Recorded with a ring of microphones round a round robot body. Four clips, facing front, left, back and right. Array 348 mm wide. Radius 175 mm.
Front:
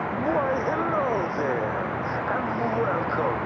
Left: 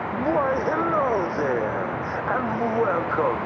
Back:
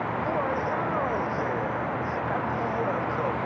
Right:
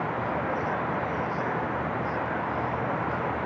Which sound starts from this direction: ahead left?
Laughter, at 0.1 s.